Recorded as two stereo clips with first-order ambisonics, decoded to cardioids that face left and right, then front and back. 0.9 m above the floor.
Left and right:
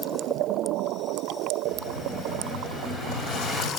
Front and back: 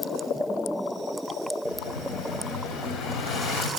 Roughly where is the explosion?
Ahead left.